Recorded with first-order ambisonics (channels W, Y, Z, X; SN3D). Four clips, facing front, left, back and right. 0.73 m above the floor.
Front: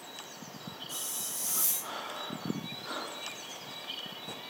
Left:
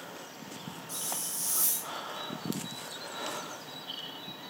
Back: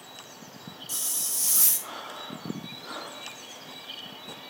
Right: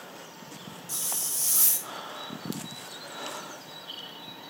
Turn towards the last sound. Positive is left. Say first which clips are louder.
# right 5 dB, back 8 dB
turn(degrees=-140)